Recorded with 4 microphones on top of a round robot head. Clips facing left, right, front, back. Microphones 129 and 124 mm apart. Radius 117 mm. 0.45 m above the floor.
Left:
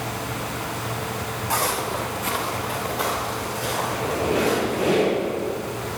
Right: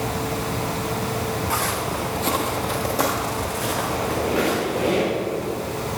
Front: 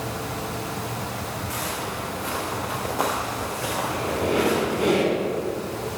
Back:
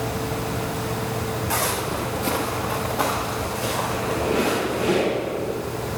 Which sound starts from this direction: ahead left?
A squeak, at 3.9 s.